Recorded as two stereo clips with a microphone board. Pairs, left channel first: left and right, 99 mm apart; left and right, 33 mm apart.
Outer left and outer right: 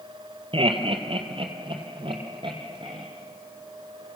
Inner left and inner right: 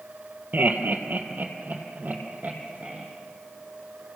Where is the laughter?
65° right (ahead or behind), 2.5 m; by 3.0 s 55° right (ahead or behind), 4.5 m.